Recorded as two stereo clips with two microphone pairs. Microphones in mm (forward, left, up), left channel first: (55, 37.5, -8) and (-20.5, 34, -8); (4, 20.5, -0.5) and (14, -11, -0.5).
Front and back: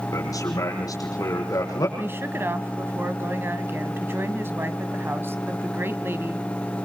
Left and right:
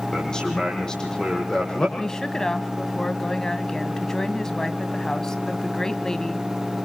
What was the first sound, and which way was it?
A man speaking, 40° left.